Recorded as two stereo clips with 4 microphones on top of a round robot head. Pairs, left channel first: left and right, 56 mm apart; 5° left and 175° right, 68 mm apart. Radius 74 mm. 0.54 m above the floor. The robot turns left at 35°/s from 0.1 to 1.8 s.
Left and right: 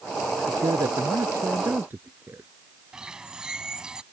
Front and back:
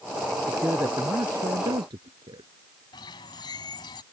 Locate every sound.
0.5 s a man speaking: 105° right; by 2.5 s 155° right
2.9 s a bird: 15° right